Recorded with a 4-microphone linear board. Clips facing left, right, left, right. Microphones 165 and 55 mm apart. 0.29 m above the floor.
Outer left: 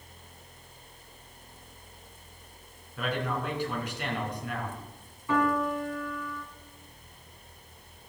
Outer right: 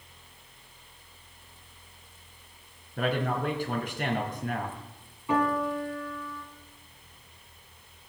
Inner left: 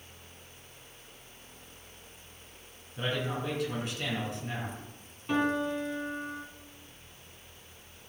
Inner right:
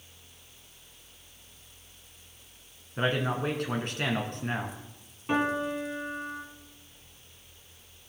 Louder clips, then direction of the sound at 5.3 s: Even, inner right 1 dB; 20° right (ahead or behind).